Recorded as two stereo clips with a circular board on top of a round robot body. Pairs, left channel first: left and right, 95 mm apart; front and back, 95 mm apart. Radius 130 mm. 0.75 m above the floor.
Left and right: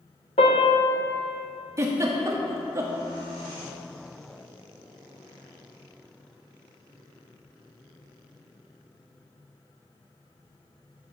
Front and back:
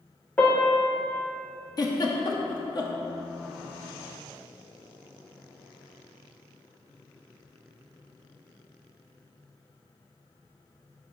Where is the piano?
75° left, 0.5 m.